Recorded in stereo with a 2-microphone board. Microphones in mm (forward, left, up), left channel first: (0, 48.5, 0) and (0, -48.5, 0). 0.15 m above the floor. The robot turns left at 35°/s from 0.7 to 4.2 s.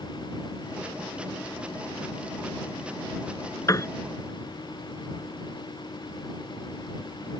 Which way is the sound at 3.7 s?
35° left (ahead or behind).